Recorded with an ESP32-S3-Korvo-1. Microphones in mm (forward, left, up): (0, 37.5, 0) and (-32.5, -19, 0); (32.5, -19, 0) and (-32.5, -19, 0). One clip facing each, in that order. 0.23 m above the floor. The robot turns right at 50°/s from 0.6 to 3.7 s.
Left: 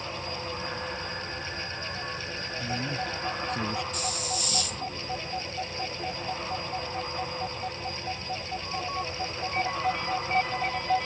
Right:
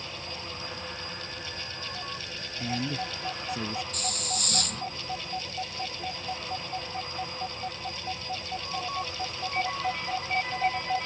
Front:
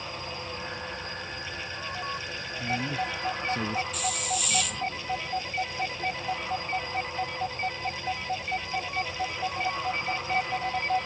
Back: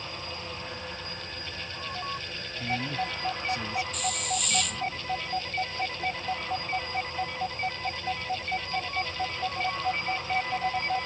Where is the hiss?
90° right.